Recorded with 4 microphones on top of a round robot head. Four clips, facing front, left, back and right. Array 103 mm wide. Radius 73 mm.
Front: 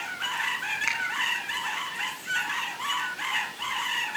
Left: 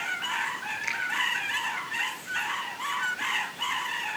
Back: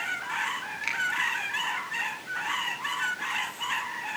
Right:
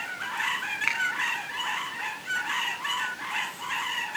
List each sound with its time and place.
0.8 s a finger snap: 65° right, 5 m